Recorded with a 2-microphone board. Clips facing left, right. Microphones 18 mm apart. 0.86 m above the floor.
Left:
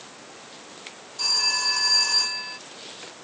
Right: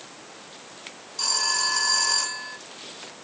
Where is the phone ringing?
40° right (ahead or behind), 2.5 m.